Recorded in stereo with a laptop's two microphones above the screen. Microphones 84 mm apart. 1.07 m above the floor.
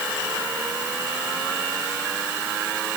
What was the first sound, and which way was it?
Only background noise.